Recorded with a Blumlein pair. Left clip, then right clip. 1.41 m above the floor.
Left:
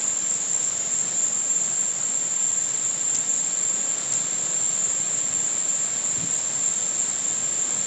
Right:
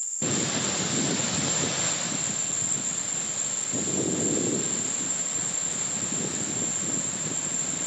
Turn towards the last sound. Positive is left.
turn(degrees=30)